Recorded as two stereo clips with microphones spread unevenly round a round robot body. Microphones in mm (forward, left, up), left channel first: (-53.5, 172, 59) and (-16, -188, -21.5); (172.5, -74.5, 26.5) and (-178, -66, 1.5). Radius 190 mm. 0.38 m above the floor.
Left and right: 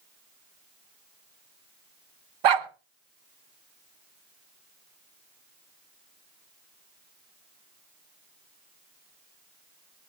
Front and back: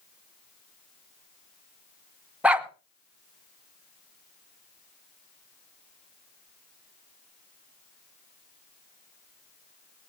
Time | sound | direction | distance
2.4 | a dog barking | 95° right | 1.1 m